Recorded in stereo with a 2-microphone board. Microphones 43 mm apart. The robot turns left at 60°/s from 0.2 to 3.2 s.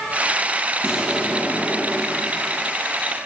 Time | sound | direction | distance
0.8 | an explosion | 165° right | 5 m